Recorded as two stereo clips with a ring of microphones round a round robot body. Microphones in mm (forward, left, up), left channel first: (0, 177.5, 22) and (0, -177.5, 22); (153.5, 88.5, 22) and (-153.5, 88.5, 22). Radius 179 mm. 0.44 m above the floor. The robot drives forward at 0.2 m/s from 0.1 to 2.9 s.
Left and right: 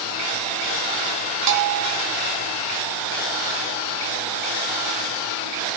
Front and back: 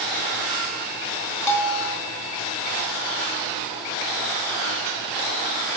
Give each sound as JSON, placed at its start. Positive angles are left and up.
{"t": 1.5, "sound": "a bell", "azimuth_deg": -75, "distance_m": 0.5}